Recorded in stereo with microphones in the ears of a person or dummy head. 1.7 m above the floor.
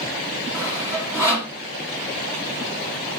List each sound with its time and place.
0.5 s sawing: 15° right (ahead or behind), 1.0 m